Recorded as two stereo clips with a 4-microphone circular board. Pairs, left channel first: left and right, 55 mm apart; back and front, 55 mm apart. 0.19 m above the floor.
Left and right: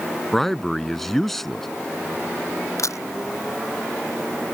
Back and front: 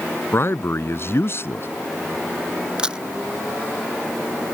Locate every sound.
0.3 s a man speaking: 175° left
2.8 s a camera shutter: 75° left